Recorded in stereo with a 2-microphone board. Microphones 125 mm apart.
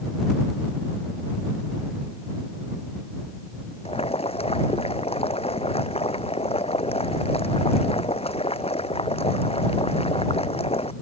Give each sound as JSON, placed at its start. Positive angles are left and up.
{"t": 3.9, "sound": "boiling", "side_deg": 55}